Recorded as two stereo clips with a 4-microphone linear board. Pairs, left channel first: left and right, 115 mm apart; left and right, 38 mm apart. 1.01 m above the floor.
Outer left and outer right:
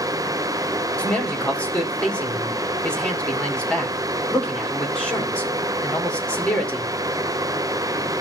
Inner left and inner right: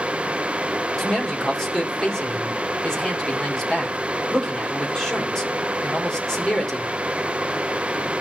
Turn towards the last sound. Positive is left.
turn(degrees=10)  # may be behind; listen again after turning